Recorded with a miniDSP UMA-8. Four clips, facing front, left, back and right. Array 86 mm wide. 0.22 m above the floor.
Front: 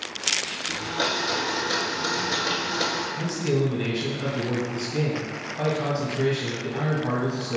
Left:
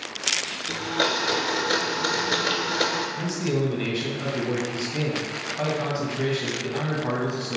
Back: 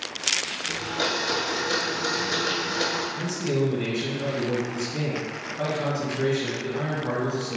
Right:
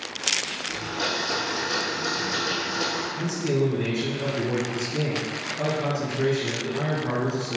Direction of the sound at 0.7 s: 85° left.